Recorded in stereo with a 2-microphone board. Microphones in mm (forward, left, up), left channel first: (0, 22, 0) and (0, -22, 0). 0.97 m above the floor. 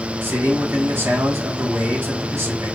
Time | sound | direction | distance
0.2 | a man speaking | 55° right (ahead or behind) | 1.7 m